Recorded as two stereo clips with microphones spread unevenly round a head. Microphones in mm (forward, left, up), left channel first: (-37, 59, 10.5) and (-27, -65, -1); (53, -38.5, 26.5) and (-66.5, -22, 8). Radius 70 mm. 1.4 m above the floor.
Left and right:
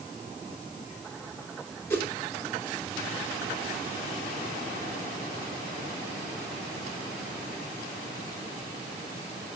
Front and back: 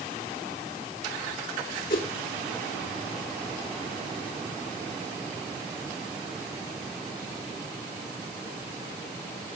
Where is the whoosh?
20° left, 3 m.